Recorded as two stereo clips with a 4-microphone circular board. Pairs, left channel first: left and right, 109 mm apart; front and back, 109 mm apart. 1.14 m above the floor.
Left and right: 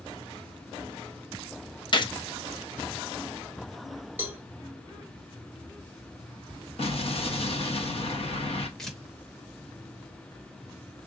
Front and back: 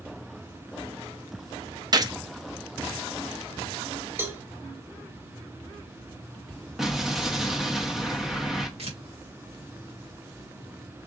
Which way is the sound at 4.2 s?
140° right.